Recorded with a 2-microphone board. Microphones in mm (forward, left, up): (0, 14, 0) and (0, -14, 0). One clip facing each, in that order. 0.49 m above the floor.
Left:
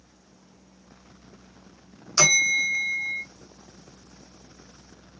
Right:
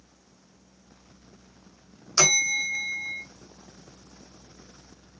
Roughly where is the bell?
Centre.